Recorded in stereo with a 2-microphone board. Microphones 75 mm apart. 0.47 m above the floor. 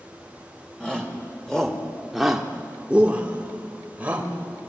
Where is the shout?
10° left (ahead or behind), 2.5 m; by 4.3 s 20° right (ahead or behind), 2.5 m.